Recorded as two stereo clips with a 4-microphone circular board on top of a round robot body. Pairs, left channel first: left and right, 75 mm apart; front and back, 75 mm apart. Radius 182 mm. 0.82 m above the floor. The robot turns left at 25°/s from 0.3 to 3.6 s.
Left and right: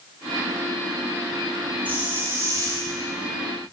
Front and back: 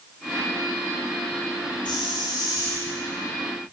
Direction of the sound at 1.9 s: 20° right.